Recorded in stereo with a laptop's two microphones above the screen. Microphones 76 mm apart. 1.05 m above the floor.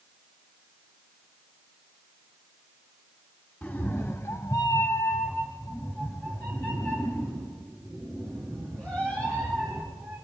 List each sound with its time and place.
3.6 s a cat meowing: 20° left (ahead or behind), 1.5 m; by 10.2 s 15° left (ahead or behind), 7.5 m